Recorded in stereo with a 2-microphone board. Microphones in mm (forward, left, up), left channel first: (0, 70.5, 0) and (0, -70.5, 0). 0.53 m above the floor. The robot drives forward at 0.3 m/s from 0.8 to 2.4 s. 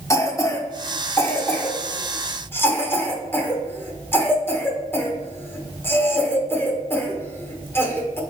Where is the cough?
20° left (ahead or behind), 0.9 m; by 8.2 s 15° left (ahead or behind), 1.3 m.